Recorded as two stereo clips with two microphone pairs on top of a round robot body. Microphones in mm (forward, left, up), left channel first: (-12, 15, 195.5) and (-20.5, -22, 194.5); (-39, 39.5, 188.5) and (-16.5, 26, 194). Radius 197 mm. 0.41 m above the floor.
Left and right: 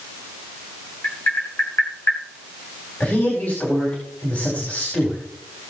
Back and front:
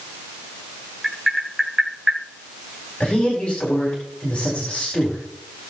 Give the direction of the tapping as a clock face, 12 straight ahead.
10 o'clock.